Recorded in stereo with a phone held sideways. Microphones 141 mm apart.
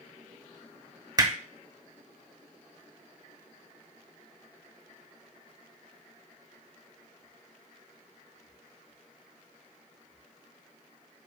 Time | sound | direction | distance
1.2 | hammering | 25° right (ahead or behind) | 0.7 m